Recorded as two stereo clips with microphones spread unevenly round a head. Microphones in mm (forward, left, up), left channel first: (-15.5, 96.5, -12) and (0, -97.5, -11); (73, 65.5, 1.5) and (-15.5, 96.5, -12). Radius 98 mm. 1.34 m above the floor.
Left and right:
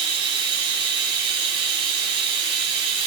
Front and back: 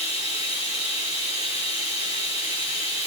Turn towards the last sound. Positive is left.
turn(degrees=-150)